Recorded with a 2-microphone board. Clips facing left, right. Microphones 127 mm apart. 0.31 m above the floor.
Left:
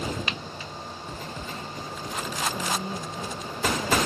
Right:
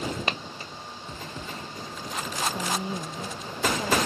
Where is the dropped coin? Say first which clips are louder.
Right 2 dB; 45° right (ahead or behind).